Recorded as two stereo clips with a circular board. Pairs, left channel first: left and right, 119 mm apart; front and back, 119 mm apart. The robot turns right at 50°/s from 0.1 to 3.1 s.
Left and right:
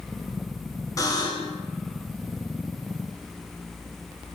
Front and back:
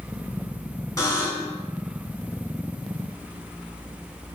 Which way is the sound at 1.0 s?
45° left.